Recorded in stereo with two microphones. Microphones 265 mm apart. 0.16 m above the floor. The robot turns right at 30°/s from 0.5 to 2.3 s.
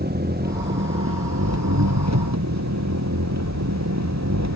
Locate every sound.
0.0 s an engine running: 140° right; by 4.5 s 90° right